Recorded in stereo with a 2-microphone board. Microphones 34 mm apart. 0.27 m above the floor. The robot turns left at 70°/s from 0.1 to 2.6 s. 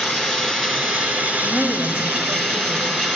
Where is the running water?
40° left, 3.5 m; by 3.2 s 135° right, 3.5 m.